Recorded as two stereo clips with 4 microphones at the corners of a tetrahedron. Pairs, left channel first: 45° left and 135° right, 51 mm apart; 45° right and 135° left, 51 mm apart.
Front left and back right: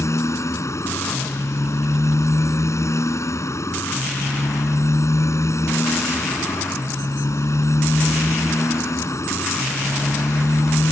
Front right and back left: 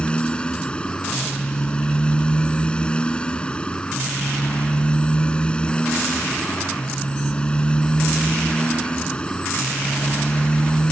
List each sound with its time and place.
0.0 s a motorcycle: 25° left